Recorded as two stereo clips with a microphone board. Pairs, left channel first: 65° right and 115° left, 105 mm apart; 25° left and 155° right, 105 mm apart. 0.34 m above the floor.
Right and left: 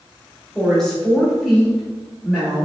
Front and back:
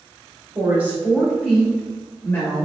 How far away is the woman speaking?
About 1.2 m.